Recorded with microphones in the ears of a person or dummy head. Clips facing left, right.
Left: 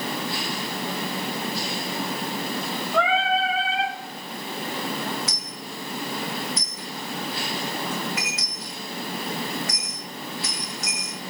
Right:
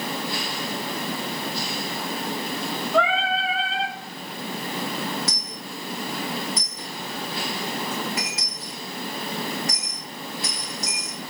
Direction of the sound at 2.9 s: Centre (ahead or behind).